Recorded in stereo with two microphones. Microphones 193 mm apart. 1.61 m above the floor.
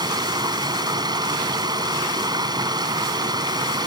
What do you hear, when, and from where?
0.0 s running water: 20° right (ahead or behind)